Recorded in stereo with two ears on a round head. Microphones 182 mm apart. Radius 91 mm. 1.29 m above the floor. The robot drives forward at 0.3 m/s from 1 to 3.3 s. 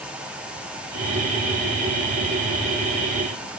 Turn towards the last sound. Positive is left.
No sound to turn to.